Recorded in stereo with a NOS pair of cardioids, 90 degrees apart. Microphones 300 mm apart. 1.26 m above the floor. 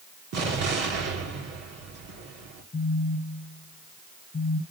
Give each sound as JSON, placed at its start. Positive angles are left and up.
{"t": 0.3, "sound": "an explosion", "azimuth_deg": -55, "distance_m": 2.5}
{"t": 2.7, "sound": "a phone buzzing", "azimuth_deg": 25, "distance_m": 0.9}